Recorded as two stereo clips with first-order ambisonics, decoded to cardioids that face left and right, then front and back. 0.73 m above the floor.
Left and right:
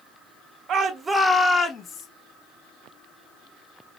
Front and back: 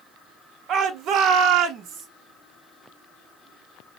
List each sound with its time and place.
0.7 s a shout: 130° right, 0.7 m; by 2.1 s 140° left, 0.9 m